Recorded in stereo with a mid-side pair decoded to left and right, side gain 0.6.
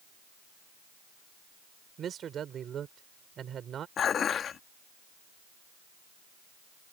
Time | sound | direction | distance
2.0 | a man speaking | 45° right | ?
4.0 | dishes clattering | 45° left | ?